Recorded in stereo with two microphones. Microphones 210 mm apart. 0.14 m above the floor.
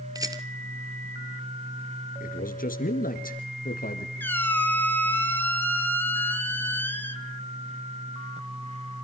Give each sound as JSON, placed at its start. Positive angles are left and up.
{"t": 0.1, "sound": "a rattle", "side_deg": -15, "distance_m": 1.2}
{"t": 2.2, "sound": "a man speaking", "side_deg": 40, "distance_m": 2.5}
{"t": 4.2, "sound": "a squeak", "side_deg": 10, "distance_m": 0.9}